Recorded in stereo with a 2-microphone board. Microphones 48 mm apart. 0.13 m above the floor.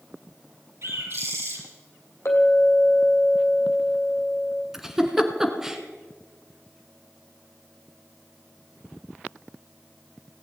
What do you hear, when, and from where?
0.8 s a bird: 65° right (ahead or behind), 3.5 m
2.2 s a clink: 75° left (ahead or behind), 3 m
4.7 s a giggle: 10° right (ahead or behind), 1.5 m